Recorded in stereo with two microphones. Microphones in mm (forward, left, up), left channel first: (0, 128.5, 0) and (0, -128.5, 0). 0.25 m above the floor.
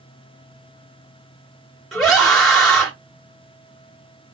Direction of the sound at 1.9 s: Centre (ahead or behind).